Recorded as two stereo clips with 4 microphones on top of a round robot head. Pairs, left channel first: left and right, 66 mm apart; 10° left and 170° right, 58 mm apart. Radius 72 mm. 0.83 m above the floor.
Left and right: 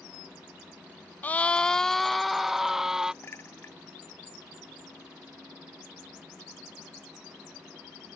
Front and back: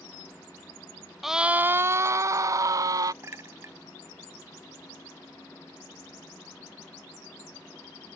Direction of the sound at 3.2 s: 150° left.